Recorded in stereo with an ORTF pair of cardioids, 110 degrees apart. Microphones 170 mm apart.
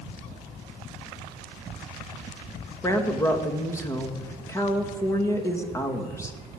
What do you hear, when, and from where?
2.8 s a woman speaking: 15° left, 2.5 m